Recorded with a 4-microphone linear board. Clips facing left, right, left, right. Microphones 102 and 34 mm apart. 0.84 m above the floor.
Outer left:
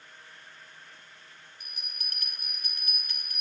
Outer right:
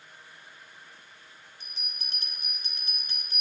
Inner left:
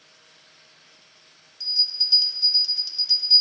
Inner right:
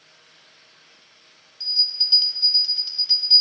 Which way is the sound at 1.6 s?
25° right (ahead or behind).